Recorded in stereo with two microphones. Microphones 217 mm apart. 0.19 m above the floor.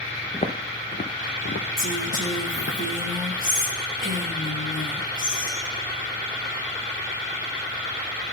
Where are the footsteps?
30° left (ahead or behind), 0.9 m; by 2.8 s 75° left (ahead or behind), 1.3 m.